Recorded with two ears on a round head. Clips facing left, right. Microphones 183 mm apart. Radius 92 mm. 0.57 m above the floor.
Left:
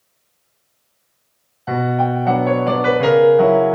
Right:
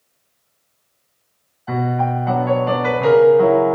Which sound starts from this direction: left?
A piano, at 1.7 s.